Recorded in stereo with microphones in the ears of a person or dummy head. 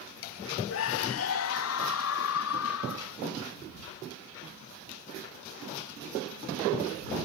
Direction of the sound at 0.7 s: 70° left (ahead or behind).